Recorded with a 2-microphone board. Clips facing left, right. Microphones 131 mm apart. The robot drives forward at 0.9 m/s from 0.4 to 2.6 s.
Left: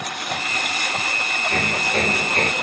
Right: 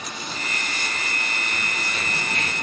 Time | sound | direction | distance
0.0 | a lawn mower | 60° left (ahead or behind) | ?
1.5 | hammering | 60° left (ahead or behind) | ?